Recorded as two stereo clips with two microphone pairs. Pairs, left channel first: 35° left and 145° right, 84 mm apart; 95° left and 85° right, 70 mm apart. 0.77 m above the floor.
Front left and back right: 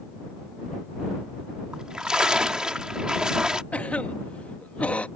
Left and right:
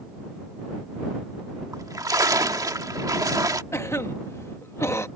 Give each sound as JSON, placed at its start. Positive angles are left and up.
{"t": 1.7, "sound": "a splash", "azimuth_deg": -60}
{"t": 3.7, "sound": "a cough", "azimuth_deg": 100}